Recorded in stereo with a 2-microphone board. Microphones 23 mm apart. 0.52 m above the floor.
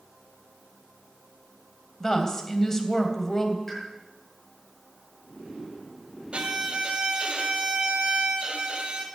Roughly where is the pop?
Centre.